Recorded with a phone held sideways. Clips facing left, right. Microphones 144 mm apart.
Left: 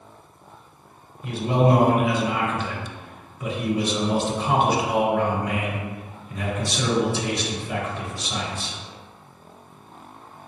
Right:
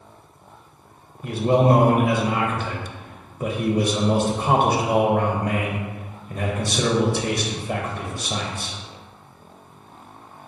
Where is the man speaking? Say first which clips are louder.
Right 3 dB; 50° right (ahead or behind), 0.6 m.